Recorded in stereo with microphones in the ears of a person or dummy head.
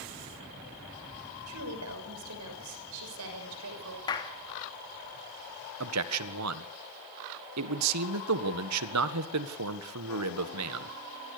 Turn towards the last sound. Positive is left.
turn(degrees=-85)